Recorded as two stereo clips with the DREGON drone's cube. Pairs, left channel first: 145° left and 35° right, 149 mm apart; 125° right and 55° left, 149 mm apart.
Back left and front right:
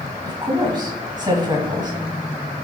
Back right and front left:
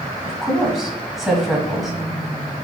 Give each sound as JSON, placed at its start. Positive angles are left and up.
{"t": 0.2, "sound": "a woman speaking", "azimuth_deg": -30, "distance_m": 1.6}